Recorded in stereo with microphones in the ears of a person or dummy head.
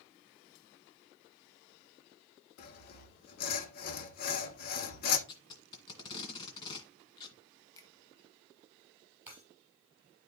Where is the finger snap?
20° left (ahead or behind), 1.2 m.